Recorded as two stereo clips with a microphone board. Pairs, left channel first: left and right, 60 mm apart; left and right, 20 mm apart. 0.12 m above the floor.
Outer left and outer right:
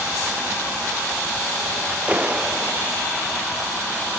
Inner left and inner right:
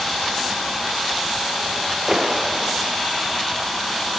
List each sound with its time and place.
2.1 s a clap: 20° right (ahead or behind)